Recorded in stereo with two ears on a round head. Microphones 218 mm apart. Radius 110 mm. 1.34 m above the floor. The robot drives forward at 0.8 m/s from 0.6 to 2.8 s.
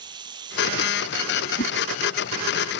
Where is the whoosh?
40° left (ahead or behind).